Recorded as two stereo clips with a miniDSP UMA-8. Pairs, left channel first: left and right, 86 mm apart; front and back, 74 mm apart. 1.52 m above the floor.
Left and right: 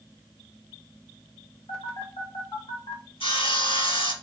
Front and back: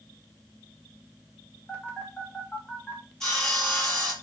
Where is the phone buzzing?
70° left, 3 m.